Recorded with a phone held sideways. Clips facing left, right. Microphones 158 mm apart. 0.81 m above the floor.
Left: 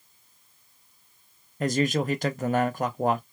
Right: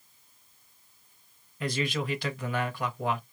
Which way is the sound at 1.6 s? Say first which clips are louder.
Left 6 dB; 45° left (ahead or behind).